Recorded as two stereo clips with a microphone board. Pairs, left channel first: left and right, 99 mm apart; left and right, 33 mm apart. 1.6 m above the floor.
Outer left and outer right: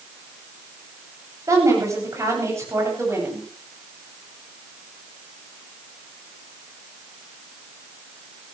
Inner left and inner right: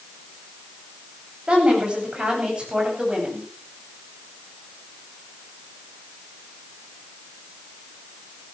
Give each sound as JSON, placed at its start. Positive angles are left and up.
{"t": 1.5, "sound": "a woman speaking", "side_deg": -35, "distance_m": 8.0}